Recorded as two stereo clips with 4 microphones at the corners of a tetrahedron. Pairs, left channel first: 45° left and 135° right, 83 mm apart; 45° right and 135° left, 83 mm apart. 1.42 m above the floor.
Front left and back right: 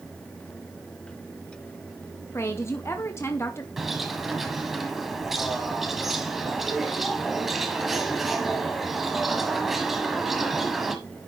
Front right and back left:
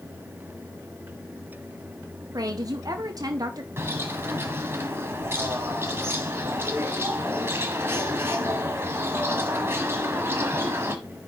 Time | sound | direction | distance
2.3 | a woman speaking | 100° left | 0.9 m
3.8 | a bird | 145° left | 1.4 m